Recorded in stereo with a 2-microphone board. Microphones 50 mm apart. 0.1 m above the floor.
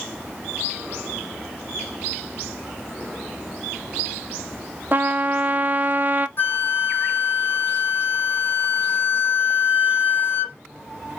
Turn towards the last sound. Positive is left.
turn(degrees=45)  # may be behind; listen again after turning